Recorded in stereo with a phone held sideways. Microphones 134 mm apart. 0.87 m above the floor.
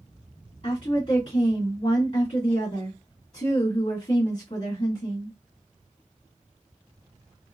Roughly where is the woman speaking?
Left.